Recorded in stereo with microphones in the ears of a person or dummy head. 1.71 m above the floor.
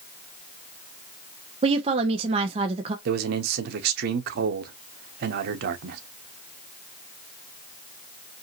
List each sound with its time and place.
1.6 s a woman speaking: 35° right (ahead or behind), 0.9 m
3.0 s a man speaking: 60° right (ahead or behind), 0.9 m